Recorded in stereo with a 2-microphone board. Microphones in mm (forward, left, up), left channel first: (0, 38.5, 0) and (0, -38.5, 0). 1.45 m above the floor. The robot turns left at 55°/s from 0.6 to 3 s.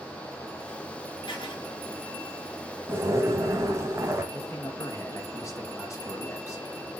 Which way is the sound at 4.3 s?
40° left (ahead or behind).